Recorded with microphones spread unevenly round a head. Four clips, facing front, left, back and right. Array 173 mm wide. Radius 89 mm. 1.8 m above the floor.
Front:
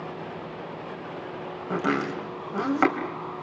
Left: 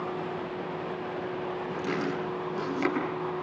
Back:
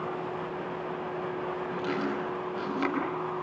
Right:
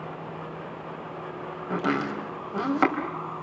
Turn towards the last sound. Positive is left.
turn(degrees=-45)